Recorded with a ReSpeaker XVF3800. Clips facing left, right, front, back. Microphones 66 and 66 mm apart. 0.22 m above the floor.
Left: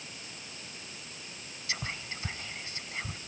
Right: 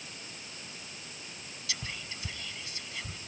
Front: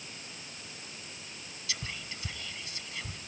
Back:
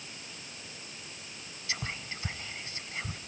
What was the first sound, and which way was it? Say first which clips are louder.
Whispering: left 4 dB, back 3 dB; 135° left.